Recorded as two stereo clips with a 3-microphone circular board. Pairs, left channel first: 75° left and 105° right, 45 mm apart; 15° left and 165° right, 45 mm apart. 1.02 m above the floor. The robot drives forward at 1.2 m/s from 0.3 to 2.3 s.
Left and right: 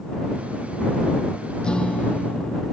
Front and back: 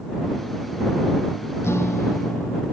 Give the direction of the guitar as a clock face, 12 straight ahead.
12 o'clock.